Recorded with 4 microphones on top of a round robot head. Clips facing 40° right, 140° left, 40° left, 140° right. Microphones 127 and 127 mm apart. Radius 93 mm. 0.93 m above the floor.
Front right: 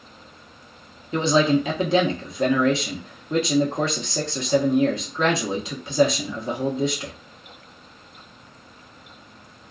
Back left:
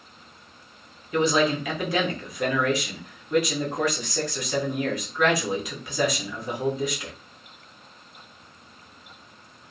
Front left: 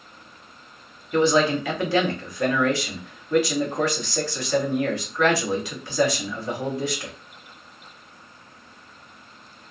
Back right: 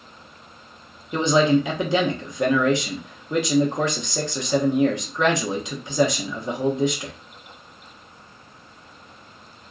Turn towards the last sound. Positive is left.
turn(degrees=-85)